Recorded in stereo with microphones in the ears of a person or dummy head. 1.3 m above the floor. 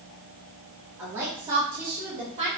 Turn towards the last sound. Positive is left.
turn(degrees=-30)  # may be behind; listen again after turning